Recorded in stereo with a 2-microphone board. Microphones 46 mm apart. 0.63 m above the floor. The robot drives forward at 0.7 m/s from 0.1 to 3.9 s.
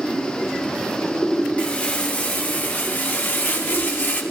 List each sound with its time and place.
1.6 s crumpling: 30° left (ahead or behind), 1.9 m; by 4.2 s 50° left (ahead or behind), 1.2 m